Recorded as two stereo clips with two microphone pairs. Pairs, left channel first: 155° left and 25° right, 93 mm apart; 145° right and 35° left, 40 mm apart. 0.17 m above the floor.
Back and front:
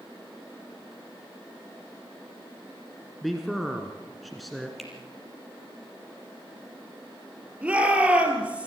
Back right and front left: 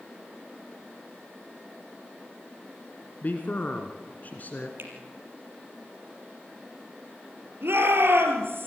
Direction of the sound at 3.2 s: 115° right.